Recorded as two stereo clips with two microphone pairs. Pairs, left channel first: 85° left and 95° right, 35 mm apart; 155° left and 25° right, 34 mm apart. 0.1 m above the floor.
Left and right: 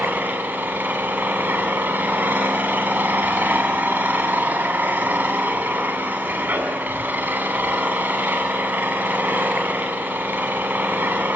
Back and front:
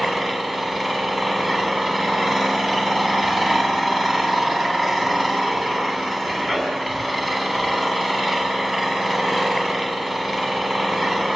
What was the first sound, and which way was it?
An engine running, 100° right.